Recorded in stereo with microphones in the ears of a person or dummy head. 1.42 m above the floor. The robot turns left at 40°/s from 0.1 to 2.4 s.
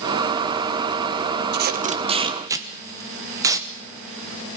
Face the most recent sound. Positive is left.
turn(degrees=-15)  # may be behind; listen again after turning